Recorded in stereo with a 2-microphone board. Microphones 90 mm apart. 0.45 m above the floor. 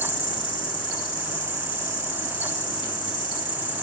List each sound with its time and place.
0.0 s an insect: 65° left (ahead or behind), 3 m